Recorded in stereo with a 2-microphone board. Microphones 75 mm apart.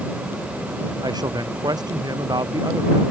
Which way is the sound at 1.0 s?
60° right (ahead or behind).